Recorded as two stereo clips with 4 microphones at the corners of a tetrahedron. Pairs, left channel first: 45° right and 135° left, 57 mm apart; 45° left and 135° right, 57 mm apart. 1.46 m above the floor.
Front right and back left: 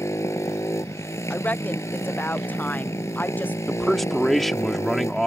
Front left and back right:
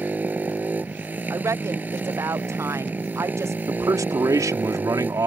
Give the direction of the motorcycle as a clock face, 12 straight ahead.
3 o'clock.